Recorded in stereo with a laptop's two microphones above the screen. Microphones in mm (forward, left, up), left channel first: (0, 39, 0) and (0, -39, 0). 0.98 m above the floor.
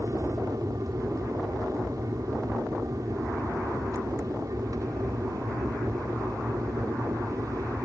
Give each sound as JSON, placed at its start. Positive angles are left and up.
{"t": 0.0, "sound": "an aircraft", "side_deg": -50}